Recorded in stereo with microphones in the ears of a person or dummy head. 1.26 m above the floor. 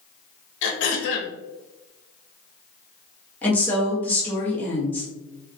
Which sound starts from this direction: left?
Throat clearing, at 0.6 s.